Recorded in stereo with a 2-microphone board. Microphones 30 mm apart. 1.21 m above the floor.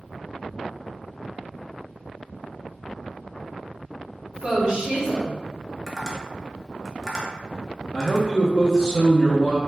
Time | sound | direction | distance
4.3 | a woman speaking | 25° right (ahead or behind) | 1.5 m
5.9 | tapping | 5° left (ahead or behind) | 0.9 m
7.9 | a man speaking | 30° left (ahead or behind) | 0.6 m